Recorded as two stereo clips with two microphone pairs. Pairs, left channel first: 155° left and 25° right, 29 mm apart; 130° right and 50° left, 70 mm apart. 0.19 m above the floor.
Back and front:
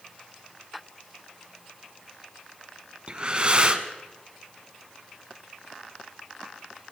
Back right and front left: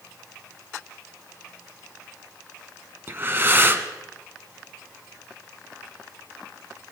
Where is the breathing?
10° left, 1.1 m.